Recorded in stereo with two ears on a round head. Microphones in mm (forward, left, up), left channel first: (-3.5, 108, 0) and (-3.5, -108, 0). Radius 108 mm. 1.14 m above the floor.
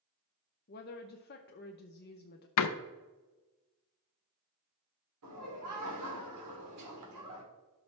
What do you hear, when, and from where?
0.7 s a woman speaking: 45° left (ahead or behind), 0.7 m
2.6 s a door slam: 80° left, 0.6 m
5.2 s laughter: 85° right, 3 m